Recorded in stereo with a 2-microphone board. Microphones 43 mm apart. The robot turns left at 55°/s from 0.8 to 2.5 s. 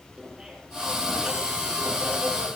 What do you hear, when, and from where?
0.2 s laughter: 20° right, 9 m; by 2.5 s 115° right, 9 m